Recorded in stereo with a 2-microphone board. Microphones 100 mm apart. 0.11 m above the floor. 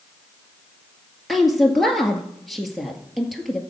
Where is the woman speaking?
Centre (ahead or behind), 1.9 m.